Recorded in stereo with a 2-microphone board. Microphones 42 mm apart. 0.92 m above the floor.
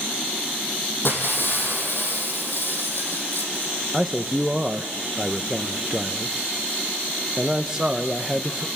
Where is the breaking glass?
55° left (ahead or behind), 4.5 m.